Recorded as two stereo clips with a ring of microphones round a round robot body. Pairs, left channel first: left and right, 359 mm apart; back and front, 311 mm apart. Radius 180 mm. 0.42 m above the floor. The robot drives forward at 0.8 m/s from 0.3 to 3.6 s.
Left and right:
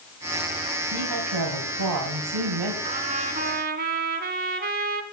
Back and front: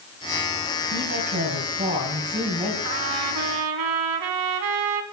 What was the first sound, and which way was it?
A woman speaking, 55° right.